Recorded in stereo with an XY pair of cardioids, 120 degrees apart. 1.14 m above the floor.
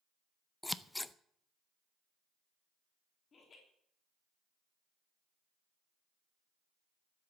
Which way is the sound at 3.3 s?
35° left.